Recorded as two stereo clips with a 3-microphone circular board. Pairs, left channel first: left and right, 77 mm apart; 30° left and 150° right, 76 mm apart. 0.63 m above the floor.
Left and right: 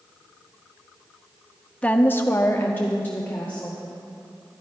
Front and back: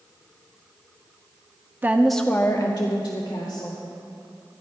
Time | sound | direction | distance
1.8 | a woman speaking | 155° left | 0.7 m